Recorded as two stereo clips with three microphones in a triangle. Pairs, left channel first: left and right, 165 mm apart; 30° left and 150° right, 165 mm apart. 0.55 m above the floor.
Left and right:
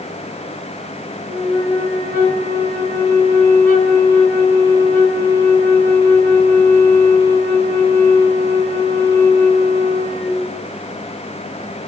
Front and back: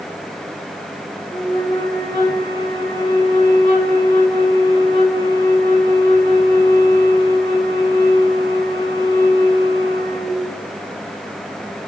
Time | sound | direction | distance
1.3 | a flute | 70° left | 1.2 m